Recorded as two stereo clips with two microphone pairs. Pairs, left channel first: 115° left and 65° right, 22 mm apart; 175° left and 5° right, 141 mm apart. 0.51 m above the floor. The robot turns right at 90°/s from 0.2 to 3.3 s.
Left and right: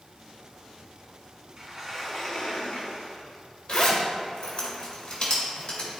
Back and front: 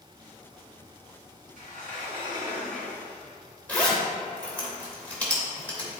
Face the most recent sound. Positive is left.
turn(degrees=100)